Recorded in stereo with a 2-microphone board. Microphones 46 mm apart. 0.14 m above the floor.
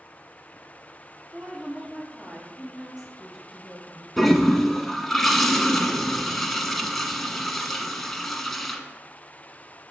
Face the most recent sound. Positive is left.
turn(degrees=5)  # may be behind; listen again after turning